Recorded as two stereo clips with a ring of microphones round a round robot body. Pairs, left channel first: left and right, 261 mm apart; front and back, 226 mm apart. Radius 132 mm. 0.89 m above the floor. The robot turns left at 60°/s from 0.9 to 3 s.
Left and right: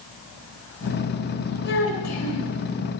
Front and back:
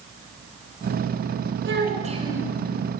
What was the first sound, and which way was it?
A child speaking, 145° left.